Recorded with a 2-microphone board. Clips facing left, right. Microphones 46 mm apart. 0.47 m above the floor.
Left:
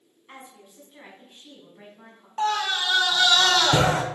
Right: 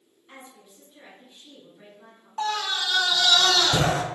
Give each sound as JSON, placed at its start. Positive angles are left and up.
{"t": 0.3, "sound": "a woman speaking", "side_deg": 30, "distance_m": 4.5}
{"t": 2.4, "sound": "a scream", "side_deg": 35, "distance_m": 1.6}